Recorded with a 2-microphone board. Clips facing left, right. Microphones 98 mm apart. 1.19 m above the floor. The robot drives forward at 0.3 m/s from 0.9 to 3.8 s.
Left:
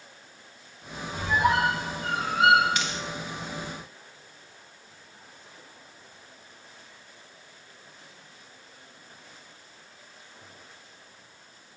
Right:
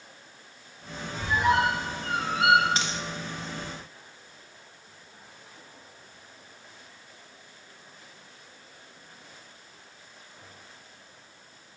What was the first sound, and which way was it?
A squeak, 55° left (ahead or behind).